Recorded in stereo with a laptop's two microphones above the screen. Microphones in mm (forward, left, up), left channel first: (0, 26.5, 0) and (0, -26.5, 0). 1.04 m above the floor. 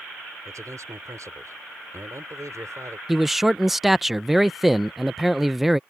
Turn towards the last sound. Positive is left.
turn(degrees=-5)  # may be behind; listen again after turning